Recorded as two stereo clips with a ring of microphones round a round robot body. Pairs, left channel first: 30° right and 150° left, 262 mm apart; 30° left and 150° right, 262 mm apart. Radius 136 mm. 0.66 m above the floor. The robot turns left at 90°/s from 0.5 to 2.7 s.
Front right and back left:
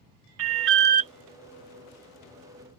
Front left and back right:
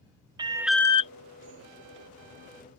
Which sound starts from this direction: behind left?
An alarm, at 0.4 s.